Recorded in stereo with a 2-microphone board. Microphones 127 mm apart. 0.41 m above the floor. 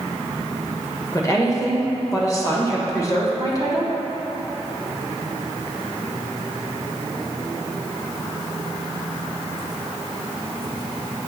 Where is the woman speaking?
30° left (ahead or behind), 1.3 m.